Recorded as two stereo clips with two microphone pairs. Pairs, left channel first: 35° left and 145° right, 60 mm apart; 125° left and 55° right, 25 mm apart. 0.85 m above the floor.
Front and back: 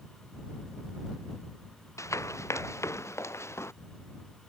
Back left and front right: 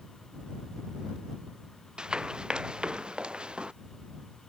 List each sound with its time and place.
2.0 s running footsteps: straight ahead; by 3.7 s 10° right